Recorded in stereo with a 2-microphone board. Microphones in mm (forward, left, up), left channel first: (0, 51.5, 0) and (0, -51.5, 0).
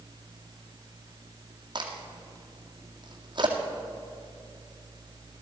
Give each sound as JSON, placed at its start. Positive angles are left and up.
{"t": 1.8, "sound": "a crack", "side_deg": -50, "distance_m": 2.0}